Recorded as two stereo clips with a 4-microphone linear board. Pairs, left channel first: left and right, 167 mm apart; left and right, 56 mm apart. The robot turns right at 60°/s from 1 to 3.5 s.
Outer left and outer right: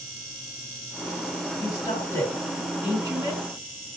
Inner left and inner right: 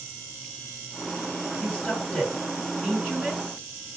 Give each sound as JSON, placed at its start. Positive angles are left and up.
{"t": 1.6, "sound": "a woman speaking", "side_deg": 30, "distance_m": 1.8}